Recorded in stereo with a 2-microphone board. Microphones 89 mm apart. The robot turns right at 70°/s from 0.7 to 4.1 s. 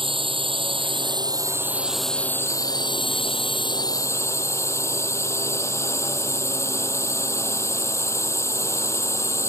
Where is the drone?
95° right; by 9.5 s 145° left.